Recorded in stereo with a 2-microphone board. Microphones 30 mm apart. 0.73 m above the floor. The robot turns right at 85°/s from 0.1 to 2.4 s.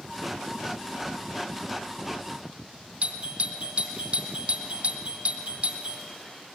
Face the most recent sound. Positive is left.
turn(degrees=-45)  # may be behind; listen again after turning